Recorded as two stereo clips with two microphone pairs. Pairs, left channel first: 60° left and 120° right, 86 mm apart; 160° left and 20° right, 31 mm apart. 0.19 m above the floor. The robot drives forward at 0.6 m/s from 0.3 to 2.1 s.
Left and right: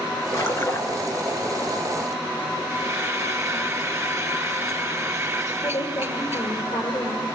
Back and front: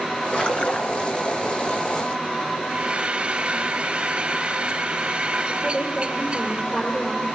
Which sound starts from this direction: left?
A woman speaking, at 5.6 s.